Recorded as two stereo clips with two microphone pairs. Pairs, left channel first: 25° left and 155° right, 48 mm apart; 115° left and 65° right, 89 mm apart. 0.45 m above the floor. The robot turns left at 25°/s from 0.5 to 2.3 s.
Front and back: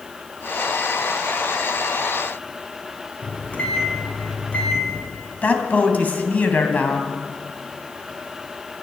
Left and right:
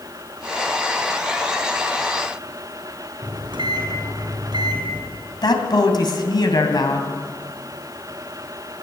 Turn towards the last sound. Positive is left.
turn(degrees=80)